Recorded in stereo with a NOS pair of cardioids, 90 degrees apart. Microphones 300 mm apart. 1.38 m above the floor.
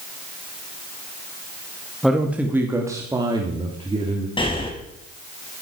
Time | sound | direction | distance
2.0 | a man speaking | straight ahead | 2 m
4.4 | breathing | 15° left | 4.5 m